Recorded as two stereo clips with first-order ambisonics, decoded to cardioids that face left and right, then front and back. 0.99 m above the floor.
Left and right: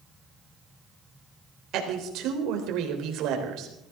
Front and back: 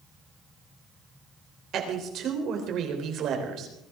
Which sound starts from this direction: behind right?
A woman speaking, at 1.7 s.